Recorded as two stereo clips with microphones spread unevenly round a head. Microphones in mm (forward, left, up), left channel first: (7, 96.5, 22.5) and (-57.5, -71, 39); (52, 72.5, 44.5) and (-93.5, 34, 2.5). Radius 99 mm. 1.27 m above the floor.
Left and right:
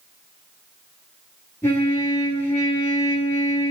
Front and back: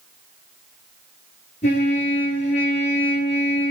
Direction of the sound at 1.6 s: 10° right.